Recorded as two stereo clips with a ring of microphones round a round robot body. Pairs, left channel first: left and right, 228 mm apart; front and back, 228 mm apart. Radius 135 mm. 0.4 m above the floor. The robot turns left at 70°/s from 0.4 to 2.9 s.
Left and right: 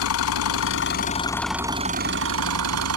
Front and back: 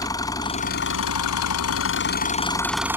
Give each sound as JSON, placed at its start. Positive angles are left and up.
{"t": 0.0, "sound": "an engine running", "azimuth_deg": 75}